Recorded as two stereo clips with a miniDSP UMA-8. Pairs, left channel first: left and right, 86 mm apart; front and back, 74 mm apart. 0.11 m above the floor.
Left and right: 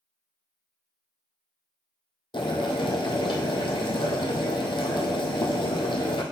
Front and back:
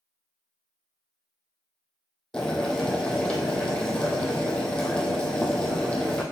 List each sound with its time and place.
2.3 s boiling: 80° left, 1.2 m